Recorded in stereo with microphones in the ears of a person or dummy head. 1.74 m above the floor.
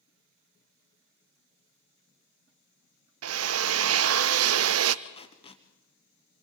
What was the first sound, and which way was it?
A drill, 80° right.